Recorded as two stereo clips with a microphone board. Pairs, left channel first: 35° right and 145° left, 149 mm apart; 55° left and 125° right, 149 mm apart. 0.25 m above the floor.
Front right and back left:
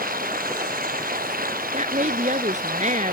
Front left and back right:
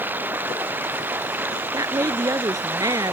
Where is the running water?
160° left.